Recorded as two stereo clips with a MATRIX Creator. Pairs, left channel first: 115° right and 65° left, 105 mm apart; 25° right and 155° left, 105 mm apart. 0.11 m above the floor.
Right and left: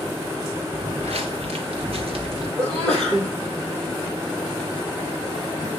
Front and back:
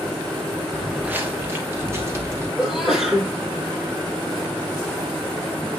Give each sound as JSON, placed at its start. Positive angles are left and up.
{"t": 0.7, "sound": "footsteps", "azimuth_deg": 75, "distance_m": 0.9}
{"t": 2.6, "sound": "a sneeze", "azimuth_deg": 75, "distance_m": 4.0}